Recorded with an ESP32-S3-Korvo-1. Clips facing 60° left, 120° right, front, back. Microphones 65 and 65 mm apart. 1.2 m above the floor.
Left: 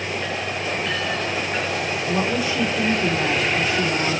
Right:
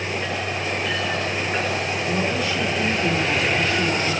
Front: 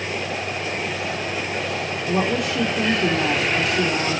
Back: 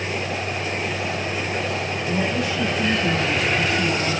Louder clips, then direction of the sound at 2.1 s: Left 2 dB, front 3 dB; 15° right.